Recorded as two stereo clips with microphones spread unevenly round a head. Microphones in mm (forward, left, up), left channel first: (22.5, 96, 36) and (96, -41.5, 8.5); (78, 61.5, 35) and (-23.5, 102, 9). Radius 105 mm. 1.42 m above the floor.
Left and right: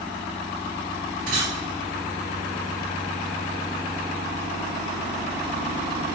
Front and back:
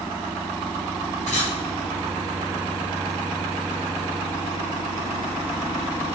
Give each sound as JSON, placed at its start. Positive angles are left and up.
{"t": 1.3, "sound": "a camera shutter", "azimuth_deg": -110, "distance_m": 4.0}